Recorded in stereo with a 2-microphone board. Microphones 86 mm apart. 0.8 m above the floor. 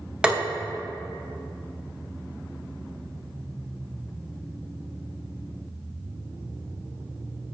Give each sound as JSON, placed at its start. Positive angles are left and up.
{"t": 0.2, "sound": "tapping", "side_deg": -10, "distance_m": 0.7}